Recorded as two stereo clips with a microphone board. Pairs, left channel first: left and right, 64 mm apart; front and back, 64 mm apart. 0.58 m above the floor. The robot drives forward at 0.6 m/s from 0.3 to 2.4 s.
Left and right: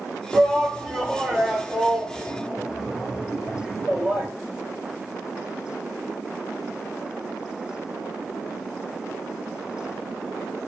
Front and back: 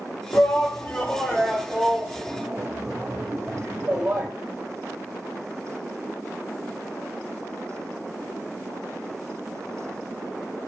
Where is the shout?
10° right, 1.3 m; by 4.3 s 165° right, 1.1 m.